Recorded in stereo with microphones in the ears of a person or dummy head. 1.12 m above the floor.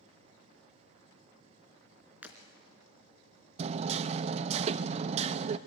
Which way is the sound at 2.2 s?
10° right (ahead or behind).